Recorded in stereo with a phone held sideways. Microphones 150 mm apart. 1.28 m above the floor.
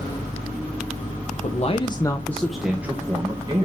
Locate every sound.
1.4 s a man speaking: 50° left (ahead or behind), 1.1 m; by 3.6 s 30° right (ahead or behind), 1.9 m